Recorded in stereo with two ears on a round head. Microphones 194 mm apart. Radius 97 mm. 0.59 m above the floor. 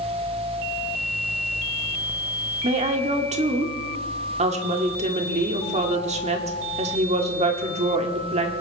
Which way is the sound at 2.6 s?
30° right (ahead or behind).